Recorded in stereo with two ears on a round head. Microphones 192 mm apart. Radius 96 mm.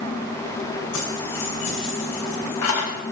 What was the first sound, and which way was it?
Keys jangling, 75° left (ahead or behind).